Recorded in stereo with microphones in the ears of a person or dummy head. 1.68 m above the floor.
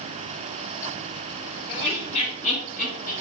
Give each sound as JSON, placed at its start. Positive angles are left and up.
{"t": 1.7, "sound": "laughter", "side_deg": 45, "distance_m": 0.7}